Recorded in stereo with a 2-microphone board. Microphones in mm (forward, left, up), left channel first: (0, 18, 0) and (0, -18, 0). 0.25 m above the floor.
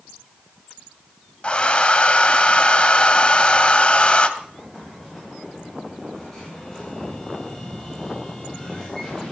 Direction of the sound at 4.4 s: 20° left (ahead or behind).